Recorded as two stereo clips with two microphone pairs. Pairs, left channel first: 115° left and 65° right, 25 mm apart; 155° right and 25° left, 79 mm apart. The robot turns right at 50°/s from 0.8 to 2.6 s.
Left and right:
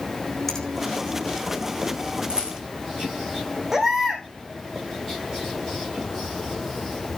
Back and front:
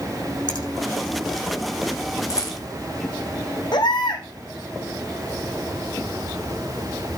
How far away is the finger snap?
About 10 m.